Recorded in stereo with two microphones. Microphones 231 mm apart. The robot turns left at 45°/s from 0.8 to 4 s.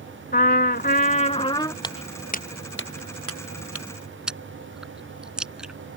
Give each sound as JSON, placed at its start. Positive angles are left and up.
{"t": 0.3, "sound": "a trumpet", "azimuth_deg": 60}
{"t": 1.8, "sound": "footsteps", "side_deg": 20}
{"t": 4.3, "sound": "chewing", "side_deg": -5}